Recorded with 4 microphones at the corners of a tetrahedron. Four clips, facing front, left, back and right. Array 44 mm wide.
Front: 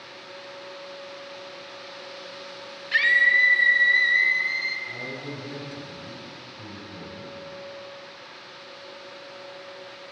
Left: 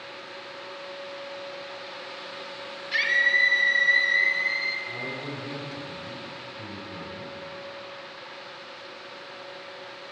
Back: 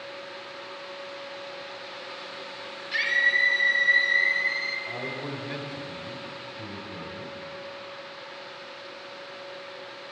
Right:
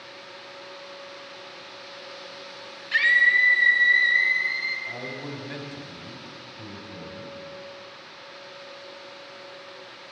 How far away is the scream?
About 1.2 m.